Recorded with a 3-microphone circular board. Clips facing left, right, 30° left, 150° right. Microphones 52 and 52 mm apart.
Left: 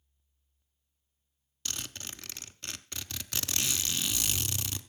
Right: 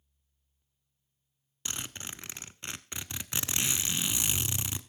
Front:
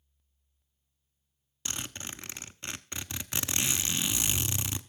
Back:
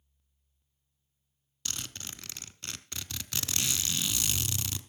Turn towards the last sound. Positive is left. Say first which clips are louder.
# right 1 dB, front 2 dB
turn(degrees=-30)